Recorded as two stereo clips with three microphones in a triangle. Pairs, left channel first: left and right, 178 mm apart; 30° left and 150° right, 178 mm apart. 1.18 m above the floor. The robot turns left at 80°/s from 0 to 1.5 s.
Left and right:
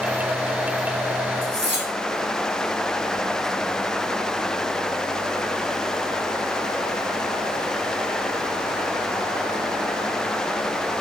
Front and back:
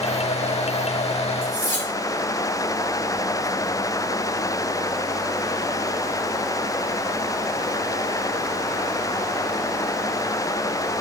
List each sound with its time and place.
1.4 s cutlery clinking: 90° right, 3.5 m; by 1.9 s 100° right, 3.5 m